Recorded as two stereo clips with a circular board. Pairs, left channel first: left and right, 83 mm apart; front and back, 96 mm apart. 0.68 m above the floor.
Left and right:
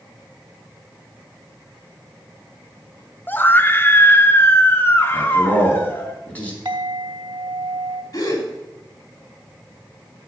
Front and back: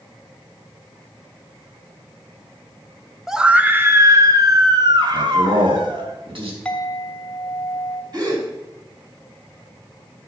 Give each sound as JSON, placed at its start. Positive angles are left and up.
{"t": 3.3, "sound": "a scream", "azimuth_deg": 100, "distance_m": 0.7}
{"t": 5.1, "sound": "a man speaking", "azimuth_deg": 160, "distance_m": 4.5}
{"t": 6.7, "sound": "a clink", "azimuth_deg": -80, "distance_m": 2.5}
{"t": 8.1, "sound": "a gasp", "azimuth_deg": 135, "distance_m": 3.0}